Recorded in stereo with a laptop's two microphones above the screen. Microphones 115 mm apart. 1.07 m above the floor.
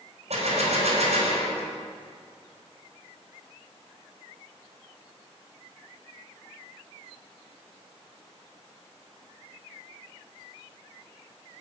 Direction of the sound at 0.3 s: 75° right (ahead or behind).